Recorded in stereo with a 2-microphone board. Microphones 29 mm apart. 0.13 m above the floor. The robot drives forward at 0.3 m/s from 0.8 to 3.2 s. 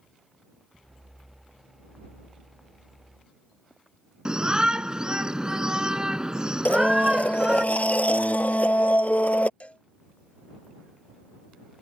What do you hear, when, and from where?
4.2 s a shout: 25° right (ahead or behind)
6.7 s a blender: 60° left (ahead or behind)
9.6 s a cowbell: 45° left (ahead or behind)